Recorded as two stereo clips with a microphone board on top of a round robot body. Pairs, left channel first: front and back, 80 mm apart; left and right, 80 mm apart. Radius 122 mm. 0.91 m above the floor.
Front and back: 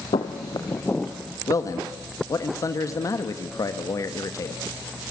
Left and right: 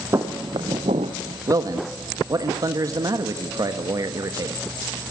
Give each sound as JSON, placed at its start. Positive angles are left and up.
{"t": 0.1, "sound": "footsteps", "azimuth_deg": -30, "distance_m": 1.6}
{"t": 1.5, "sound": "a man speaking", "azimuth_deg": -45, "distance_m": 1.3}